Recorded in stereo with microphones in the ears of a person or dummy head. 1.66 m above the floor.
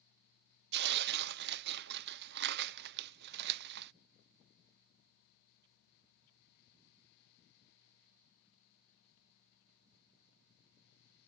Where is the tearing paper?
55° right (ahead or behind).